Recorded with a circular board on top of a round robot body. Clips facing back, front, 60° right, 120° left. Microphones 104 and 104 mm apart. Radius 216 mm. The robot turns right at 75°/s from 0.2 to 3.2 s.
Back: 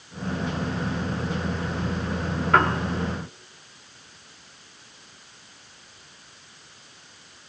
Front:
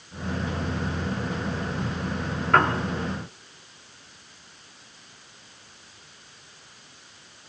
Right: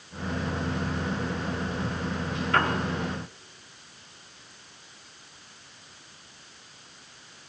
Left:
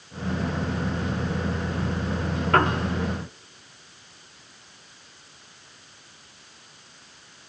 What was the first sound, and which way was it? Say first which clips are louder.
A piano: even, left 4 dB; 90° left.